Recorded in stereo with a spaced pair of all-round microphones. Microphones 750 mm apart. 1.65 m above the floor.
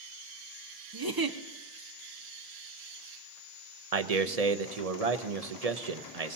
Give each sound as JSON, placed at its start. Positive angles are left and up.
{"t": 0.9, "sound": "a giggle", "side_deg": -30, "distance_m": 0.7}
{"t": 3.9, "sound": "a man speaking", "side_deg": -55, "distance_m": 0.9}